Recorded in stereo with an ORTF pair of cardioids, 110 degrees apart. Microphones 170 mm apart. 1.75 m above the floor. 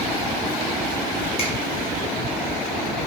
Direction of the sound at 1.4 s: 35° left.